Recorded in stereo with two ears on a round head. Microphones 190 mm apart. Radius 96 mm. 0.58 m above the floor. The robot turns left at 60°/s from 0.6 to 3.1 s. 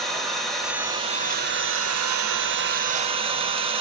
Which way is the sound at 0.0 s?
Straight ahead.